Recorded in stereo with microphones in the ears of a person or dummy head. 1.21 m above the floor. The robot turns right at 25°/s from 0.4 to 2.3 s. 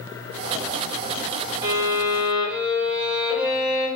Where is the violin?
20° right (ahead or behind), 1.2 m; by 3.9 s 5° right (ahead or behind), 1.2 m.